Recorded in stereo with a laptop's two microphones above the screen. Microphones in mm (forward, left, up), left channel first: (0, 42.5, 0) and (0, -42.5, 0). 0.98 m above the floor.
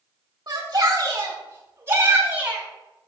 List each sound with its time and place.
0.5 s a shout: 50° right (ahead or behind), 1.9 m; by 2.6 s 20° right (ahead or behind), 2.5 m